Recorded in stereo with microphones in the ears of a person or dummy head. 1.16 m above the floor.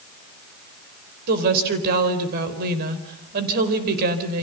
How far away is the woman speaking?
About 4 m.